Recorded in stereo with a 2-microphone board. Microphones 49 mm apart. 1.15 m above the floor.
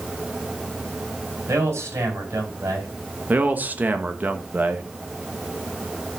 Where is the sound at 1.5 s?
85° right, 4.5 m.